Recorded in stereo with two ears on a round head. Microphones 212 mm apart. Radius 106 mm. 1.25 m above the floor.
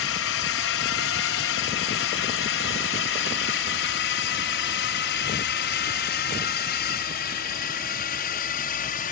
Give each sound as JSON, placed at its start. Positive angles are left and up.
{"t": 0.0, "sound": "a drone", "side_deg": 60}